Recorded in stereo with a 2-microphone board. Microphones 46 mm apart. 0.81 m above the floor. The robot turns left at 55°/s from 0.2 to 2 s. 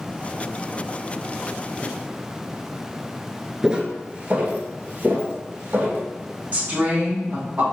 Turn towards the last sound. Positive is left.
turn(degrees=-35)  # may be behind; listen again after turning